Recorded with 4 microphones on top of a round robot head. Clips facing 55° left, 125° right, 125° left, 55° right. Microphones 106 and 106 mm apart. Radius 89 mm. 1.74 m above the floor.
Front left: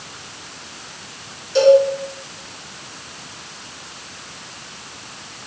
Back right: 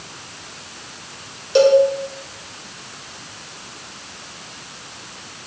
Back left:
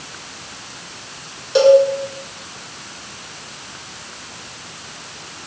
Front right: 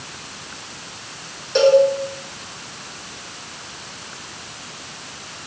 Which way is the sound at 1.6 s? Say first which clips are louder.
Front left 1 dB, back left 3 dB; 160° right.